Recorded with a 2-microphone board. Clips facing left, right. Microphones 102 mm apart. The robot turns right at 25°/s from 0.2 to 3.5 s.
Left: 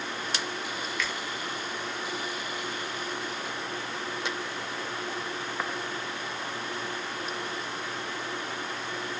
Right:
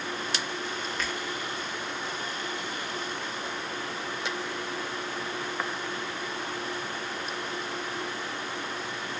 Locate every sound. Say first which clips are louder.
1.0 s a finger snap: left 1 dB; 40° right (ahead or behind), 0.8 m